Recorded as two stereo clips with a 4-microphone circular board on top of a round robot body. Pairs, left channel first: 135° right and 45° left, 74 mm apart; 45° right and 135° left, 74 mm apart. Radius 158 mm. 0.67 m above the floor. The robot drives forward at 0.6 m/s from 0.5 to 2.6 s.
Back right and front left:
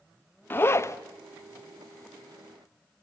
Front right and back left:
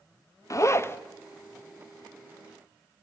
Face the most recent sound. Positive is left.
turn(degrees=-140)